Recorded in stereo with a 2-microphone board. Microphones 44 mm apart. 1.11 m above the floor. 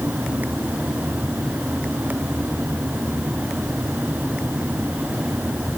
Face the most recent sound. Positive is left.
No sound to turn to.